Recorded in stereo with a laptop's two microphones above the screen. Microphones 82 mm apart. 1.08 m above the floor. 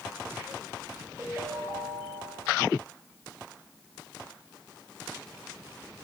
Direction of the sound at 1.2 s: 35° right (ahead or behind).